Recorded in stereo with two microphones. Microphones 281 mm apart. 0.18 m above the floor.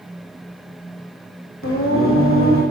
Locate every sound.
1.6 s singing: 50° left (ahead or behind), 3 m